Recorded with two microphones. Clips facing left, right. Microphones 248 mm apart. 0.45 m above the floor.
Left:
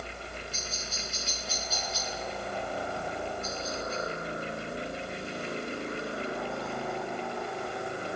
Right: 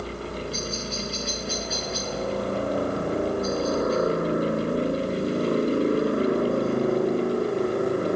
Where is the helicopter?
70° right (ahead or behind); by 8.2 s 65° right (ahead or behind).